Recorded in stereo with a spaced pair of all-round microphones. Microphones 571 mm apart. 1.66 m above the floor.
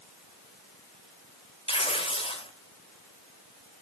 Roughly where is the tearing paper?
Centre.